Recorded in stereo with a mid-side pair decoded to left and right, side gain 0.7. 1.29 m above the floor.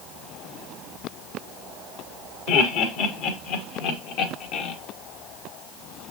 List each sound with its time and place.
2.5 s laughter: 65° left, 3 m; by 4.8 s 60° left, 1.8 m